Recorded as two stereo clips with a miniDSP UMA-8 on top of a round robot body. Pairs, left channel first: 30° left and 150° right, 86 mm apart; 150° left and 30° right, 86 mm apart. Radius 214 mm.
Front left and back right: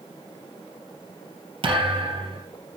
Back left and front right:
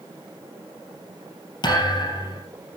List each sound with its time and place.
1.6 s a thud: 175° right, 3 m